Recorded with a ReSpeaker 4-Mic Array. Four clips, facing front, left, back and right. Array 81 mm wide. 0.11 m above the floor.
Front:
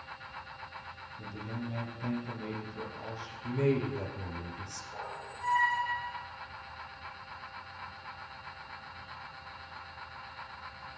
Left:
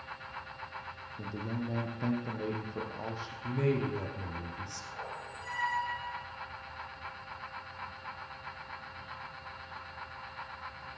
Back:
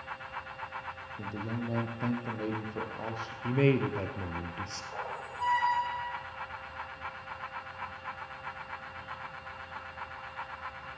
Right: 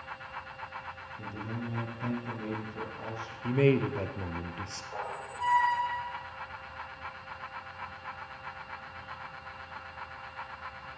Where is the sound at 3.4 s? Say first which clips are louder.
Right 6 dB, back 3 dB; 130° right, 2 m.